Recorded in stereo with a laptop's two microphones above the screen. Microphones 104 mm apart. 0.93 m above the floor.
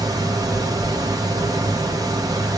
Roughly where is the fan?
Right.